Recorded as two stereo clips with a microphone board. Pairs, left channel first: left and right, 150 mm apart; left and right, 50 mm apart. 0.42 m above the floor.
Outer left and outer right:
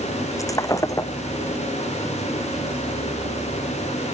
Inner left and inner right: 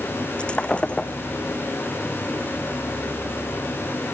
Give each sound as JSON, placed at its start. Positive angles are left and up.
{"t": 0.4, "sound": "breaking glass", "side_deg": 25}